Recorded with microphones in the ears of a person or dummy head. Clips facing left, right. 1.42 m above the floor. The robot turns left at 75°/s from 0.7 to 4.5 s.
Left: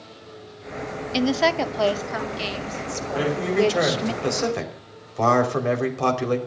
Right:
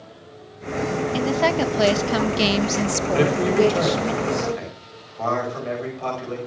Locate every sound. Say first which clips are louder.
1.1 s a woman speaking: left 1 dB; 25° left, 0.8 m; by 4.1 s 165° left, 0.8 m
3.1 s a man speaking: right 3 dB; 140° right, 5 m; by 6.4 s 115° left, 5 m